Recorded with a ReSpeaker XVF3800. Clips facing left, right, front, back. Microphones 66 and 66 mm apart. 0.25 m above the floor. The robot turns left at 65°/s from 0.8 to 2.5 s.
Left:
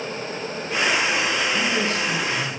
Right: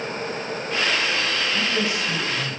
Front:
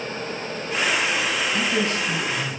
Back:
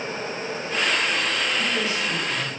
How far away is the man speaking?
About 3 m.